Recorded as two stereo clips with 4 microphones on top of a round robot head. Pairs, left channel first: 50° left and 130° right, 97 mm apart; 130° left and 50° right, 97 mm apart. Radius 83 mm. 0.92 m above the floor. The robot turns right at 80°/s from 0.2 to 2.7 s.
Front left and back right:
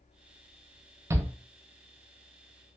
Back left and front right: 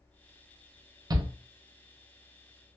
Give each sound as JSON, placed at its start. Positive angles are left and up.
{"t": 1.1, "sound": "a shout", "azimuth_deg": -80, "distance_m": 0.6}